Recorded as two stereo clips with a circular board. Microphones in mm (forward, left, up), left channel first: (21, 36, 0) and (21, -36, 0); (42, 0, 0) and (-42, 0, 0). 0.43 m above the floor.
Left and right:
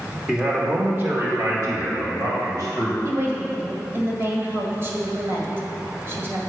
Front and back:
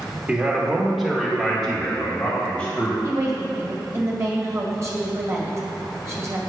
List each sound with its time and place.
0.3 s a man speaking: 150° right, 1.3 m; by 2.9 s 75° right, 3 m
3.0 s a woman speaking: 130° right, 1.8 m